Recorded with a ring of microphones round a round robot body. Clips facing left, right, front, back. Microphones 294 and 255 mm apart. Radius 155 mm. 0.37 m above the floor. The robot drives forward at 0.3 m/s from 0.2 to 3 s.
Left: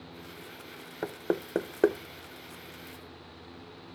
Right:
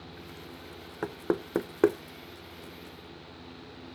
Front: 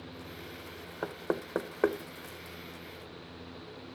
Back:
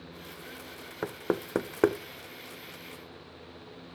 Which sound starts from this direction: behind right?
Knocking, at 1.0 s.